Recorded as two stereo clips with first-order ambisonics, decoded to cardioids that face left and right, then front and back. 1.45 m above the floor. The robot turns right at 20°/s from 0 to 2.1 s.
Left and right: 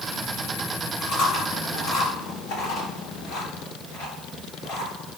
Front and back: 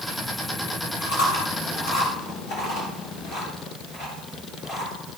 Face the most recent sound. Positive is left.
turn(degrees=60)